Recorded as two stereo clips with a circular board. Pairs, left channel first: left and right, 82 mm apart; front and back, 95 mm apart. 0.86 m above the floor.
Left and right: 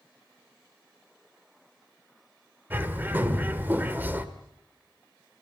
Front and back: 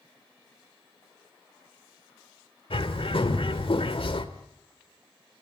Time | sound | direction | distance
2.7 | a bird | 20° right | 1.7 m